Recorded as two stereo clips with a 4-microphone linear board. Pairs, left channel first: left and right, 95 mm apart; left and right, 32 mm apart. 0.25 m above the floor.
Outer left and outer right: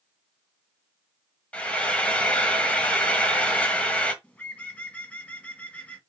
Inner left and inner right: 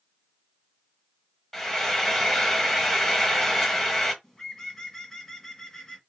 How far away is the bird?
About 1.3 m.